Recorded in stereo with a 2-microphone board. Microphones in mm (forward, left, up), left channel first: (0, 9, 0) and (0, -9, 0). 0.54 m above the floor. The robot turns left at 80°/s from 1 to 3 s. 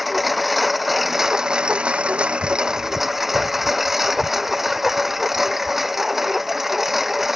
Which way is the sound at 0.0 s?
5° right.